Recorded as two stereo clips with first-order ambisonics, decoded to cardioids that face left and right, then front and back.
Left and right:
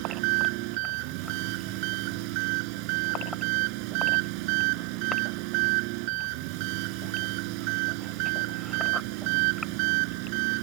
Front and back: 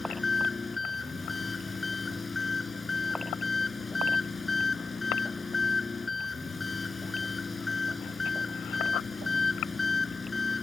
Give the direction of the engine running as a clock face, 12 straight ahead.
3 o'clock.